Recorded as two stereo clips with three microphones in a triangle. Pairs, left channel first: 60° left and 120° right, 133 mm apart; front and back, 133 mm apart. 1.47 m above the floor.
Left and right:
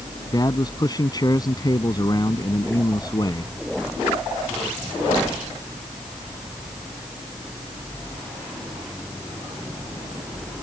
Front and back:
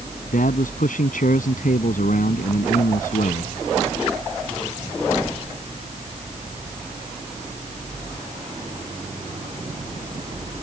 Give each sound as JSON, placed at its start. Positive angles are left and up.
{"t": 0.3, "sound": "a man speaking", "azimuth_deg": 0}